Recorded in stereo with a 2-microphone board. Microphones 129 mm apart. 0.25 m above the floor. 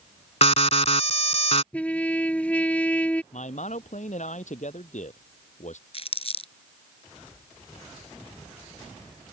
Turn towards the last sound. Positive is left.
turn(degrees=50)  # may be behind; listen again after turning